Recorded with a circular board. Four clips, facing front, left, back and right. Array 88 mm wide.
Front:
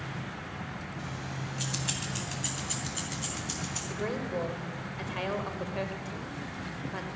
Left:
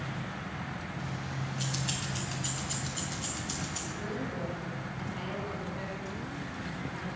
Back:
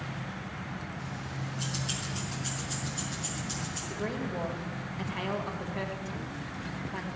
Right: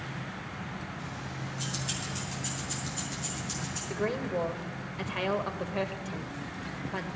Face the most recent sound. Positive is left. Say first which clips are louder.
# right 8 dB, front 1 dB
turn(degrees=-70)